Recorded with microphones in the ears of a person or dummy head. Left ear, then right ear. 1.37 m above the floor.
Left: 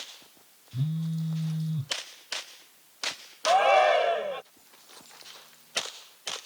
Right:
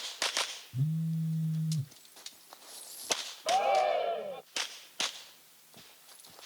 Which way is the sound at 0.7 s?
30° left (ahead or behind).